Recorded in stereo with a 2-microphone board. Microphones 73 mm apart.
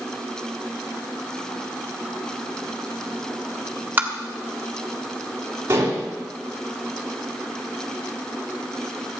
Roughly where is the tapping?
Right.